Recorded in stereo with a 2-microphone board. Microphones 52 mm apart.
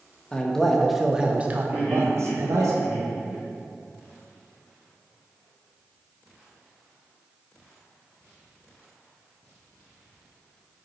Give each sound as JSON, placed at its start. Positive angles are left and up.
{"t": 0.3, "sound": "a man speaking", "side_deg": 15, "distance_m": 1.0}
{"t": 1.7, "sound": "laughter", "side_deg": 40, "distance_m": 2.0}